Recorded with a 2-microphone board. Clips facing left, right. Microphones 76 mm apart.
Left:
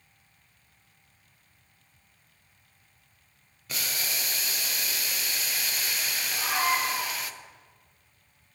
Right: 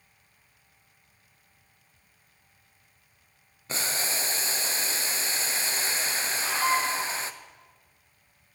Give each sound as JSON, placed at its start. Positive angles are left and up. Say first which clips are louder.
{"t": 3.7, "sound": "boiling", "louder": "right 3 dB", "side_deg": -30, "distance_m": 0.5}
{"t": 6.3, "sound": "a scream", "louder": "even", "side_deg": 60, "distance_m": 3.0}